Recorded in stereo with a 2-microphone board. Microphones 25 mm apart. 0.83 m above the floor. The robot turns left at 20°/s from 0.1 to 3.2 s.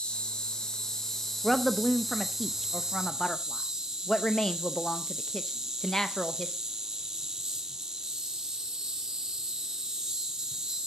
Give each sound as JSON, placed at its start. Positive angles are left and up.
{"t": 0.0, "sound": "an insect", "azimuth_deg": 40, "distance_m": 1.3}
{"t": 1.4, "sound": "a woman speaking", "side_deg": 0, "distance_m": 0.5}